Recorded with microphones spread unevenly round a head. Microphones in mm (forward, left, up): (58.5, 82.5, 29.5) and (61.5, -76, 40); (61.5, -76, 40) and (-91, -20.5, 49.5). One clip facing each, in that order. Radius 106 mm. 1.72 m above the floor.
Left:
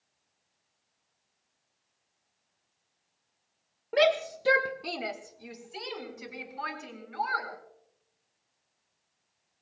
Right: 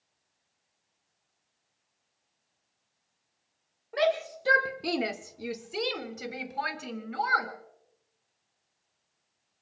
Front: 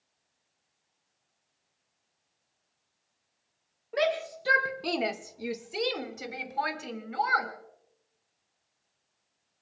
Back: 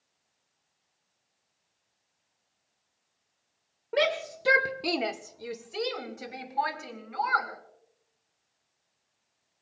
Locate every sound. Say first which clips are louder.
3.9 s a shout: left 2 dB, back 1 dB; 120° left, 1.0 m; by 7.5 s 80° right, 3.5 m